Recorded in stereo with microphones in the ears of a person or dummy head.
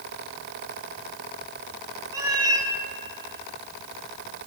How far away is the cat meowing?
About 2.5 m.